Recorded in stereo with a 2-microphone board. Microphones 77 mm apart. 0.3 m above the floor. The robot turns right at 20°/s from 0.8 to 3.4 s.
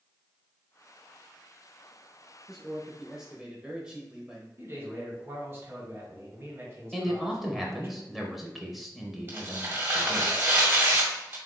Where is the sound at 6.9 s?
Centre (ahead or behind), 0.9 m.